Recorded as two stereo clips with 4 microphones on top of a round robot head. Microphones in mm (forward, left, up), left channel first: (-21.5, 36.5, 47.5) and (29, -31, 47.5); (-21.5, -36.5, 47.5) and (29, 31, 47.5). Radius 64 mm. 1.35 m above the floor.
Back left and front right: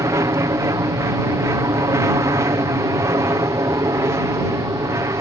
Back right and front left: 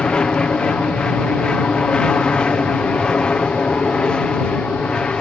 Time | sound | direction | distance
0.0 | an aircraft | 55° right | ?